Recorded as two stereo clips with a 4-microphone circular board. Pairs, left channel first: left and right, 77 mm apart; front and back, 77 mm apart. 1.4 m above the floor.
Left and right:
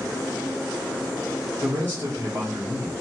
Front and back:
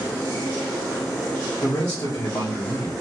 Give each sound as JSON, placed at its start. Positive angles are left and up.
{"t": 1.6, "sound": "a man speaking", "azimuth_deg": -40, "distance_m": 1.2}